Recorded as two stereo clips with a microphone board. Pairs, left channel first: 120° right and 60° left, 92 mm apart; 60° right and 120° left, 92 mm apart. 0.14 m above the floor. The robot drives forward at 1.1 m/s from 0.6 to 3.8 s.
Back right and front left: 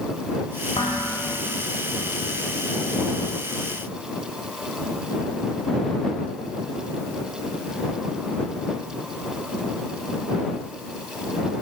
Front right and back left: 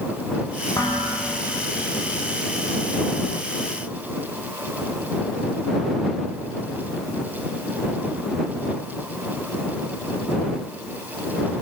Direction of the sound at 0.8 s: 110° right.